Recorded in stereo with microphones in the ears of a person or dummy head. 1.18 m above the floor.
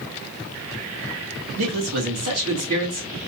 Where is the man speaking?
85° right, 2 m.